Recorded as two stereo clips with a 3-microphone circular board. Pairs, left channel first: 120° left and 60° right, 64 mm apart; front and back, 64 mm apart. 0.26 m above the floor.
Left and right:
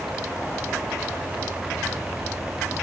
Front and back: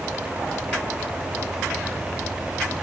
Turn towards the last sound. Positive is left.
No sound to turn to.